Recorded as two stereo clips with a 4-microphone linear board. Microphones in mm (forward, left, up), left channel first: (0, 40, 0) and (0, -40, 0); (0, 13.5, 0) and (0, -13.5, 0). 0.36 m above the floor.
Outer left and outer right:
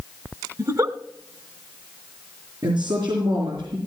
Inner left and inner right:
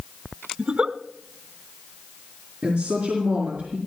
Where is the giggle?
45° right (ahead or behind), 0.9 m.